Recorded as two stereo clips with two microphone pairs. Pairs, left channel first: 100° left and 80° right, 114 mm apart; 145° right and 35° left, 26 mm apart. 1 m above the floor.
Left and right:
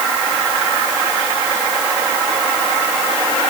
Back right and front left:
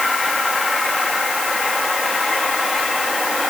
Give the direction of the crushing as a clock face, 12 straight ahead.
No crushing in this recording.